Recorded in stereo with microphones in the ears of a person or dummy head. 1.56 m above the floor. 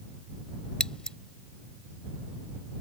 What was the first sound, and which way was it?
Scissors, 5° left (ahead or behind).